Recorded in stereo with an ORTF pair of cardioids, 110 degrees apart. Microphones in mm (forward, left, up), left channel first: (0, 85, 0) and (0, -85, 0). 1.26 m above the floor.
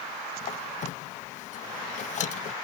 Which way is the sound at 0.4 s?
50° left.